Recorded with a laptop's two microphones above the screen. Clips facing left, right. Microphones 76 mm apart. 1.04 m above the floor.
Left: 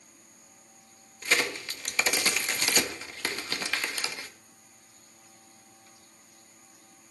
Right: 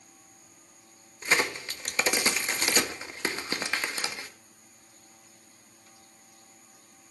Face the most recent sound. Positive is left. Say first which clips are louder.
# right 1 dB
turn(degrees=-25)  # may be behind; listen again after turning